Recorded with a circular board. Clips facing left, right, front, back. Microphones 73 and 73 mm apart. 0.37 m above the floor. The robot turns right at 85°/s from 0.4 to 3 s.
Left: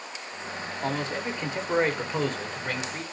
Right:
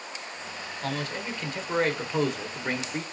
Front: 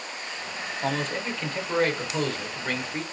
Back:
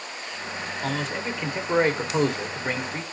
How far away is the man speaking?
About 0.8 m.